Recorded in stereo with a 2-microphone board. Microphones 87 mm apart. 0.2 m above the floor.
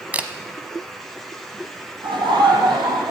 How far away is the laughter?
About 7 m.